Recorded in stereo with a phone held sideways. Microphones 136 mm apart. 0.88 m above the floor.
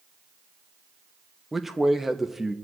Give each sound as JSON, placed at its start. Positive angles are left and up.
{"t": 1.5, "sound": "a man speaking", "side_deg": 0, "distance_m": 0.8}